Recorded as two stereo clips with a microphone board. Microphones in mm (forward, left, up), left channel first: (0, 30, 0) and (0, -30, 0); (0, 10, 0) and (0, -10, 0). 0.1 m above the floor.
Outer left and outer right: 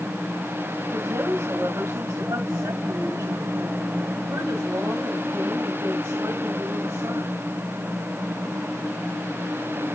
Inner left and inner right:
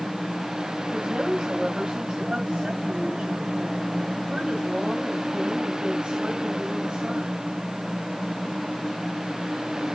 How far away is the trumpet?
I don't hear a trumpet.